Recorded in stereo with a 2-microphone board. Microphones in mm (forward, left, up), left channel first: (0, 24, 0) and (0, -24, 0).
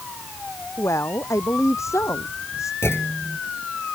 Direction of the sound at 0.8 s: 75° left (ahead or behind).